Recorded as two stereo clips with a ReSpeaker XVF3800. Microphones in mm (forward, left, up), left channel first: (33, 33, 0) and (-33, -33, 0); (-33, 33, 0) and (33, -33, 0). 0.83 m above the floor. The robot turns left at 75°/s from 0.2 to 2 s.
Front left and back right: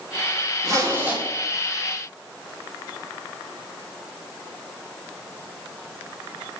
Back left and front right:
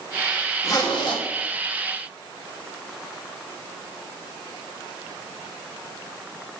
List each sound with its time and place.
0.6 s a zipper: 170° right, 1.2 m; by 1.2 s 145° left, 1.2 m